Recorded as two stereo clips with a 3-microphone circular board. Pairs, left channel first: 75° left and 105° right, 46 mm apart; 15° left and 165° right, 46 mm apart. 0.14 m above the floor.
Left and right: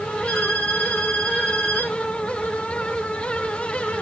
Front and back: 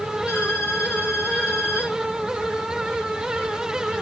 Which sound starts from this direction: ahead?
A violin, at 0.3 s.